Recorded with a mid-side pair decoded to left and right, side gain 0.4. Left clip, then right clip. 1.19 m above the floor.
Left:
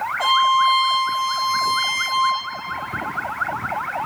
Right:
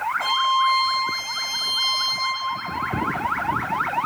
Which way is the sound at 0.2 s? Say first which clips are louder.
Left 5 dB; 60° left.